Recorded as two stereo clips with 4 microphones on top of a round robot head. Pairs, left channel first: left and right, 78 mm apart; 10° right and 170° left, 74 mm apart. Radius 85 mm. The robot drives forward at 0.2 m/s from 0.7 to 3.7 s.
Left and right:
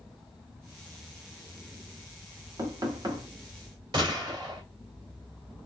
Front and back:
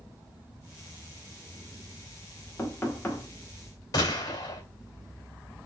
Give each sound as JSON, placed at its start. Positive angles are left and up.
{"t": 2.6, "sound": "knocking", "azimuth_deg": -65, "distance_m": 1.2}
{"t": 3.9, "sound": "a gunshot", "azimuth_deg": -55, "distance_m": 1.9}